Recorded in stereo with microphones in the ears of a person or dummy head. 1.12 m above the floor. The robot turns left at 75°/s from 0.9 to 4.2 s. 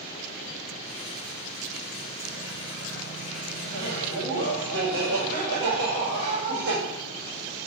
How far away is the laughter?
About 1.7 m.